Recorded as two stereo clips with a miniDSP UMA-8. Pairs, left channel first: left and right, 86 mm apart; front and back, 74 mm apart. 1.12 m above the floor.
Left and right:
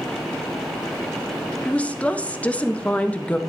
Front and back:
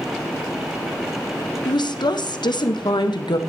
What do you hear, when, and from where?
1.6 s a woman speaking: 15° left, 0.8 m